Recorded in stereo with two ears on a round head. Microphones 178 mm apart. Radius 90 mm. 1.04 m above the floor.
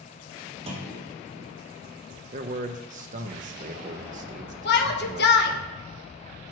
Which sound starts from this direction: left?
A shout, at 4.7 s.